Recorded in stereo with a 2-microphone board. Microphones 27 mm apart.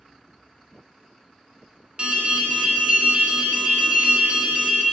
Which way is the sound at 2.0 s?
50° right (ahead or behind).